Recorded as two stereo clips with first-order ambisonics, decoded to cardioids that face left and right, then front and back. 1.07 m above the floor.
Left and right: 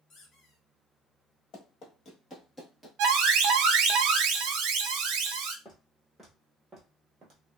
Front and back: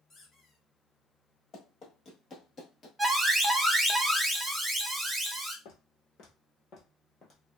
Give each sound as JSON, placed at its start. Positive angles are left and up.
{"t": 0.1, "sound": "a squeak", "azimuth_deg": 60, "distance_m": 0.8}
{"t": 1.5, "sound": "running footsteps", "azimuth_deg": 55, "distance_m": 1.6}
{"t": 3.0, "sound": "an alarm", "azimuth_deg": -100, "distance_m": 0.6}
{"t": 5.7, "sound": "footsteps", "azimuth_deg": 10, "distance_m": 1.6}